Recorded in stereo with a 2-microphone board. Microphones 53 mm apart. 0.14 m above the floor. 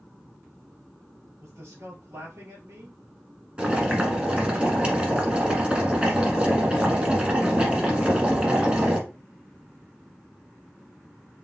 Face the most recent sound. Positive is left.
turn(degrees=-20)  # may be behind; listen again after turning